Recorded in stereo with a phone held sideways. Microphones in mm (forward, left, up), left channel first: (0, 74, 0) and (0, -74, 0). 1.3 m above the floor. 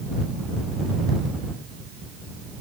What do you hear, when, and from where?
Only background noise.